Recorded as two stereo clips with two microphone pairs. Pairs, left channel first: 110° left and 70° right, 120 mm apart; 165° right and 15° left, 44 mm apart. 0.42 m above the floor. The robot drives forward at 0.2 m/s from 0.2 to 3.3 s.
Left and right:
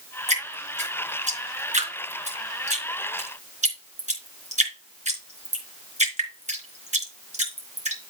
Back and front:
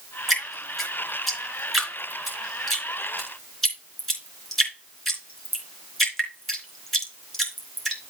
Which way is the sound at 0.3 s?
70° right.